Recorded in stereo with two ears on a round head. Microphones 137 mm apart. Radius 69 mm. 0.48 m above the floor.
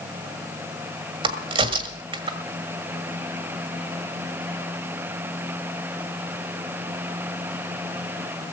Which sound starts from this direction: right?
A crack, at 1.2 s.